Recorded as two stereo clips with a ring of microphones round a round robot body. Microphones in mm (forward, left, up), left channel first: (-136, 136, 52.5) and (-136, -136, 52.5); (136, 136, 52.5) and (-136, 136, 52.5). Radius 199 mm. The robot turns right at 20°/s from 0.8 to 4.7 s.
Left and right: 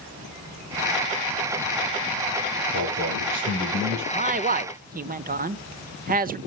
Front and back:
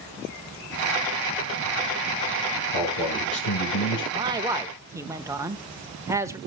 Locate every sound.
2.7 s a man speaking: 40° right, 8.5 m; by 4.0 s 15° right, 8.5 m
4.1 s a man speaking: 120° right, 0.9 m; by 6.4 s 110° right, 0.9 m